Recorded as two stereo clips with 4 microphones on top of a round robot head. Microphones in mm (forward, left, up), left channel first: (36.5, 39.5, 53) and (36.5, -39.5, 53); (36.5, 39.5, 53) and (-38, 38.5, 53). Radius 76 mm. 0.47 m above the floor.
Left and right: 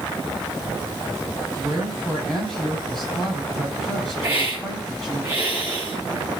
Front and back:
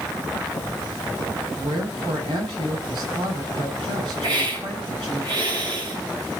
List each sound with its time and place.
1.6 s a woman speaking: 175° left, 6 m
4.2 s a hiss: 160° right, 5.5 m